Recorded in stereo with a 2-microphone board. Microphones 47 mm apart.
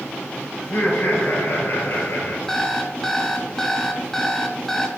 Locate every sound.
0.6 s laughter: 55° left (ahead or behind), 3.5 m
2.5 s an alarm clock: 10° left (ahead or behind), 1.0 m